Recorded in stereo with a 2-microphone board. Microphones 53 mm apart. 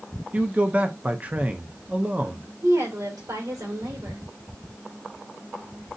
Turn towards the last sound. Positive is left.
turn(degrees=-75)  # may be behind; listen again after turning